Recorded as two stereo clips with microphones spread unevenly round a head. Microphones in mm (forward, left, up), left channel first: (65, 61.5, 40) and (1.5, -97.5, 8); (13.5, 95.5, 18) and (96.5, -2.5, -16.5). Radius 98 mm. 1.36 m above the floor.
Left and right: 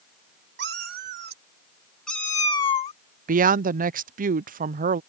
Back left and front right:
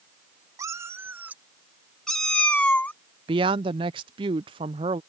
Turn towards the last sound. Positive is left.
turn(degrees=-90)